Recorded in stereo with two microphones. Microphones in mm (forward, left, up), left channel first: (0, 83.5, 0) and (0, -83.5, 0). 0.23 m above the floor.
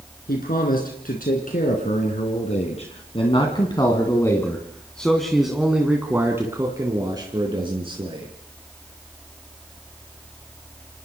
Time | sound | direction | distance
0.3 | a man speaking | 65° left (ahead or behind) | 3.5 m